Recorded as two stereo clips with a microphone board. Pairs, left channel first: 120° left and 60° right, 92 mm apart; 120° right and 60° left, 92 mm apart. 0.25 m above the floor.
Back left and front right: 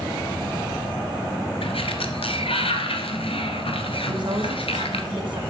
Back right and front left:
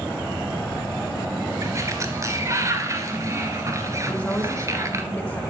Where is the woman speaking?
50° right, 2 m.